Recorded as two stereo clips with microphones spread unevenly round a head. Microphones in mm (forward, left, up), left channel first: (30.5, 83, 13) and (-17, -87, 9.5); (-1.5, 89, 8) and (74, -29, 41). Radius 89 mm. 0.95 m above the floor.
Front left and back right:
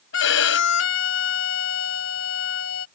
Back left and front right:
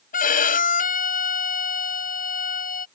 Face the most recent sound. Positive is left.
turn(degrees=95)